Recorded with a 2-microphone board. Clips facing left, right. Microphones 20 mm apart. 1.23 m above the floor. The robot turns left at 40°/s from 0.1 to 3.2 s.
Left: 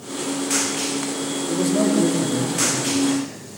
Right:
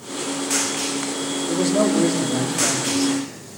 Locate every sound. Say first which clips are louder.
1.5 s a man speaking: right 1 dB; 20° right, 3 m; by 3.2 s 85° right, 3 m